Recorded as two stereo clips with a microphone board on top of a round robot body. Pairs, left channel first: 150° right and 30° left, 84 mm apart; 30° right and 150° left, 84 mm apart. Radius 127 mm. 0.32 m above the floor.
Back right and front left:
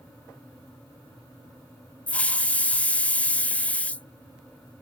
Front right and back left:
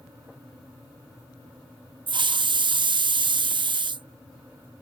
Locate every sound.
2.1 s a hiss: 135° left